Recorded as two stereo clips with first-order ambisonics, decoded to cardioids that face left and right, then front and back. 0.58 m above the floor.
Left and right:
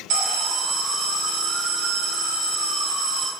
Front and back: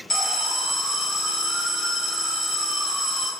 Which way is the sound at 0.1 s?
70° right.